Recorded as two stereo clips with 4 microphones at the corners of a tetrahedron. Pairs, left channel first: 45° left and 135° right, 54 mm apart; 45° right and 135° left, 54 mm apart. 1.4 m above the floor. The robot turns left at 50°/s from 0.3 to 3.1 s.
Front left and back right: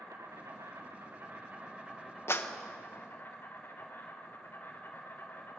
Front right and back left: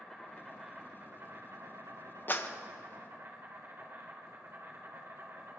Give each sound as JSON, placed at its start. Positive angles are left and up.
{"t": 0.0, "sound": "an insect", "azimuth_deg": -125, "distance_m": 5.0}
{"t": 2.3, "sound": "a clap", "azimuth_deg": 10, "distance_m": 1.2}